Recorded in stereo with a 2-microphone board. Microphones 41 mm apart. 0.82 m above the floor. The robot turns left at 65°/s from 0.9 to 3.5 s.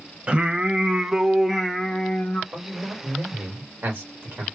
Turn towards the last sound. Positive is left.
turn(degrees=-80)